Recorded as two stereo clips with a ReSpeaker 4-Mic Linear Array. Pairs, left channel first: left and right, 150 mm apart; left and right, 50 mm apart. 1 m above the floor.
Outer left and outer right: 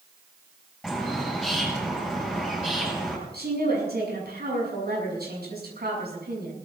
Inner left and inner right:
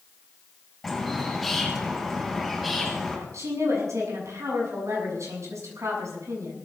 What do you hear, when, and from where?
0.8 s a bird: centre (ahead or behind), 9 m
3.3 s a woman speaking: 75° right (ahead or behind), 7 m